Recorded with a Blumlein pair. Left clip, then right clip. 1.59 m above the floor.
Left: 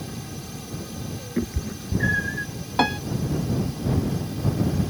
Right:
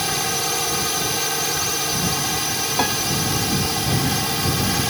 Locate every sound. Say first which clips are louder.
0.0 s a drone: right 16 dB; 40° right
1.4 s a cat meowing: right 10 dB; 40° left
2.8 s a piano: left 1 dB; straight ahead